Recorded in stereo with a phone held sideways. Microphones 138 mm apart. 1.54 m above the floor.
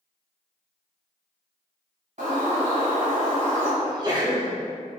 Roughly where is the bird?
Right.